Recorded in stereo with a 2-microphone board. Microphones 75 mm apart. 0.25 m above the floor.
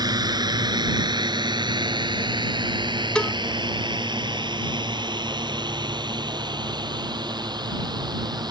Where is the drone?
60° right (ahead or behind); by 8.5 s 65° right (ahead or behind).